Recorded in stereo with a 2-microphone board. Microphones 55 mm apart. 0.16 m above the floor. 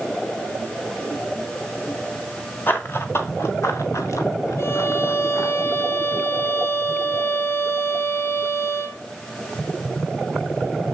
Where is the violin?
55° left (ahead or behind), 0.9 m.